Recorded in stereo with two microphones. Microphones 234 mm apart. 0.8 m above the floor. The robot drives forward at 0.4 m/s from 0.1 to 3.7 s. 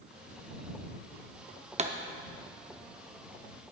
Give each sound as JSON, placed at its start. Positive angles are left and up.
{"t": 1.8, "sound": "a pop", "side_deg": -30, "distance_m": 0.7}